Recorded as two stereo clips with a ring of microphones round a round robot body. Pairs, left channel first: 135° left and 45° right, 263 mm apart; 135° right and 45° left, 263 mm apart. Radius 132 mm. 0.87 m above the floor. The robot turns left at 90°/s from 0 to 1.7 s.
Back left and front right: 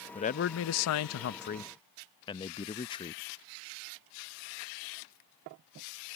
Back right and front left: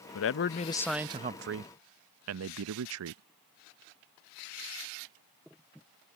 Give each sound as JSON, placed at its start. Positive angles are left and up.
{"t": 0.1, "sound": "a man speaking", "azimuth_deg": -155}